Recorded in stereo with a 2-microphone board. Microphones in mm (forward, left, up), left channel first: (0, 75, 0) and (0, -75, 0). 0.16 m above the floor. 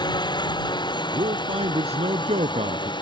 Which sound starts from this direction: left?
A drone, at 0.0 s.